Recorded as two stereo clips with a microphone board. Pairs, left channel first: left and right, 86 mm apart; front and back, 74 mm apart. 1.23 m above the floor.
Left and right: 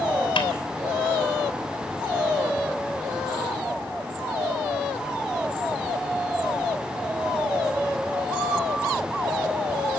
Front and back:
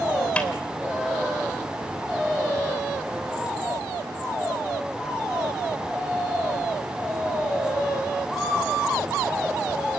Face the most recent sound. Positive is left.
turn(degrees=75)